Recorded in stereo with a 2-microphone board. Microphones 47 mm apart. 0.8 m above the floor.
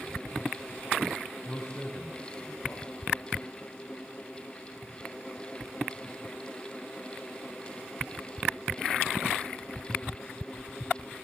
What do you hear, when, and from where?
1.4 s a man speaking: 50° left (ahead or behind), 4.5 m